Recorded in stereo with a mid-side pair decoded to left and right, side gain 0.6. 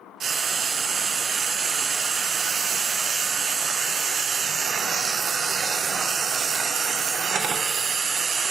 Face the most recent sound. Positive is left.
turn(degrees=-45)